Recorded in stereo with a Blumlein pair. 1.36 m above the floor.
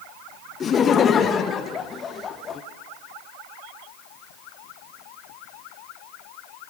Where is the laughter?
25° left, 0.6 m.